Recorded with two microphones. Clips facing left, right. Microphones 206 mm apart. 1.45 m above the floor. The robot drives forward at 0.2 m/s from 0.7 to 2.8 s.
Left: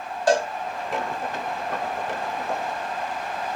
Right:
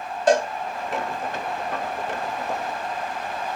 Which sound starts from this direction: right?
A cowbell, at 0.3 s.